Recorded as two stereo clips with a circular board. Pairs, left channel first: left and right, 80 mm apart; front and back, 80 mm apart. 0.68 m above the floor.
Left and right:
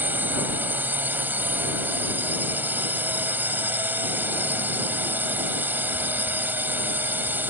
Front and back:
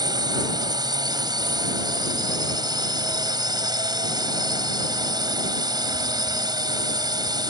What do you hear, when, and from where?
0.0 s a drone: 155° right